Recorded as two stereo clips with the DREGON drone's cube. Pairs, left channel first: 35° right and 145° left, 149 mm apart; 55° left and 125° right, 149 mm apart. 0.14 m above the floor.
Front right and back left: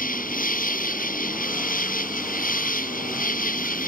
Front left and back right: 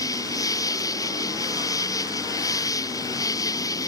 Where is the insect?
10° right.